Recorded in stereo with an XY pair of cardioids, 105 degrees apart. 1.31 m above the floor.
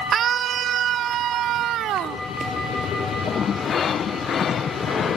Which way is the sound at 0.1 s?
60° right.